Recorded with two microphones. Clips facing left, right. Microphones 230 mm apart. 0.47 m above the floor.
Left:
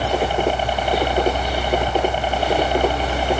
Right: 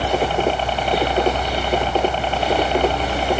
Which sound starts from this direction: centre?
A helicopter, at 0.0 s.